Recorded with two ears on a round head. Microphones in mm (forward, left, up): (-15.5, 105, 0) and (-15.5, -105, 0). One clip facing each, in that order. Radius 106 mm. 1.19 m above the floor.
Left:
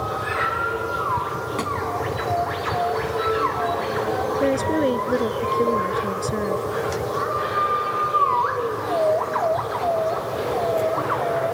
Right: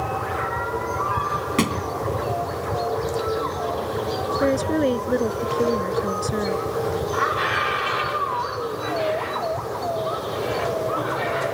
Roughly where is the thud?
Right.